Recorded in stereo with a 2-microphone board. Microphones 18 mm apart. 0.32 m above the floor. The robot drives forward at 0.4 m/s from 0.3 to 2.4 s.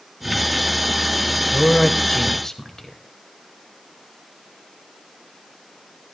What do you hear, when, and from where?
1.5 s a man speaking: 25° left (ahead or behind), 1.6 m